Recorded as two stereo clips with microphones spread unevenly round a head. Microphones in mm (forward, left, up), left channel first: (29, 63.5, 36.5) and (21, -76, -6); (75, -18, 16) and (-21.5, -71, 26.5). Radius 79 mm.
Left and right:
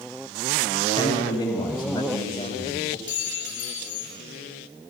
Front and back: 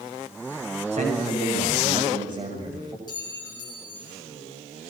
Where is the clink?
95° left, 5 m.